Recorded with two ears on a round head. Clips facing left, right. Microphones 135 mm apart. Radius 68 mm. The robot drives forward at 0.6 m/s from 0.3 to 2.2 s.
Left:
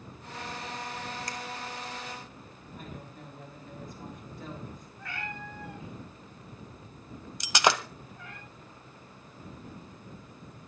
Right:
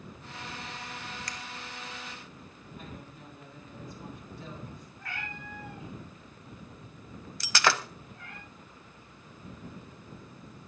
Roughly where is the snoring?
I don't hear snoring.